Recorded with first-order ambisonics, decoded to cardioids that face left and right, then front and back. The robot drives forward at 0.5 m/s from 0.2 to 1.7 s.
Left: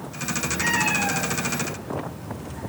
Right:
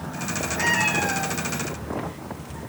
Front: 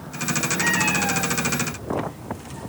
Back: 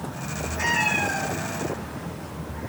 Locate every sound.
0.6 s a cat meowing: 110° right, 6 m; by 2.6 s 115° right, 6 m